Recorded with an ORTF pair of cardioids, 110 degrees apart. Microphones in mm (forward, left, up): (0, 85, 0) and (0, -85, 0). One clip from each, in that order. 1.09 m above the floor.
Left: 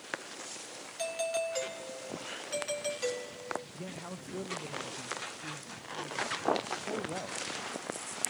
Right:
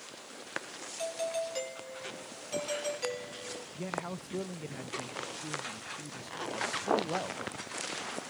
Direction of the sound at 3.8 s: 15° right.